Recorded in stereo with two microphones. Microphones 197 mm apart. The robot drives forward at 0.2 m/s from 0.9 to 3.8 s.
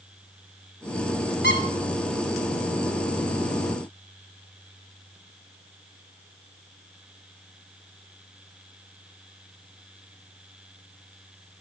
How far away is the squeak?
About 1.1 m.